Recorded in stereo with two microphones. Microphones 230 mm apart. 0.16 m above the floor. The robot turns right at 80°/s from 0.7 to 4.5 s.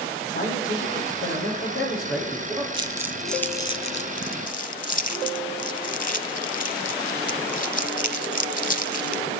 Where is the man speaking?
35° left, 5.5 m; by 2.6 s 170° right, 5.5 m.